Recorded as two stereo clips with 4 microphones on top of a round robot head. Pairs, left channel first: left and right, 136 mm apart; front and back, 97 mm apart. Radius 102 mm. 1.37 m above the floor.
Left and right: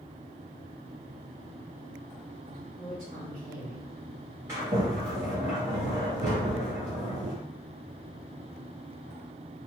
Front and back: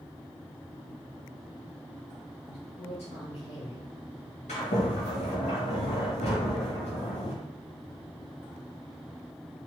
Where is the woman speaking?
20° right, 1.9 m.